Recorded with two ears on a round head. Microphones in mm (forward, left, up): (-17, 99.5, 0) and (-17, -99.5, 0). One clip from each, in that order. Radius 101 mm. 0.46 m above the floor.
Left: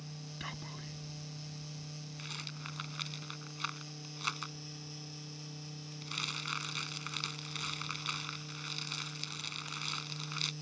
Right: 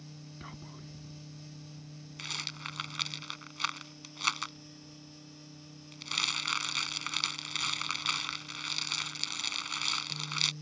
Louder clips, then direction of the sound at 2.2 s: Right 7 dB; 30° right (ahead or behind).